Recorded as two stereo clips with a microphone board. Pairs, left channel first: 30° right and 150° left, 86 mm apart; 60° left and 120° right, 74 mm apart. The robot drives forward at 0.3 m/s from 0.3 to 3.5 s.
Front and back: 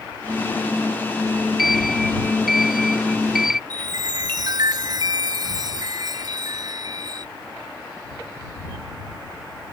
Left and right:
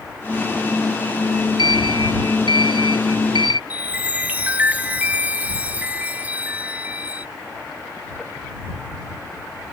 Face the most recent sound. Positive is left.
turn(degrees=175)